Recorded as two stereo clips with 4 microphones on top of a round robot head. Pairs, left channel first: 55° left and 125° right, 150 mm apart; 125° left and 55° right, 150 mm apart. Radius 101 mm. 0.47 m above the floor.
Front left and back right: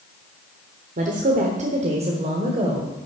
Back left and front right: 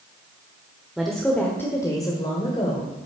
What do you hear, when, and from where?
1.0 s a woman speaking: 140° right, 1.3 m; by 3.0 s straight behind, 1.9 m